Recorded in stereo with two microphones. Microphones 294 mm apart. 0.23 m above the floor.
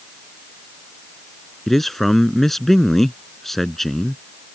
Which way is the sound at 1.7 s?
Centre (ahead or behind).